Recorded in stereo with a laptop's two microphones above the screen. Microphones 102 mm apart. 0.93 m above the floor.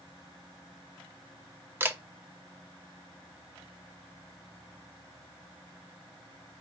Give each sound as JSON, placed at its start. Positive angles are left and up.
{"t": 1.8, "sound": "a camera shutter", "side_deg": -20, "distance_m": 0.5}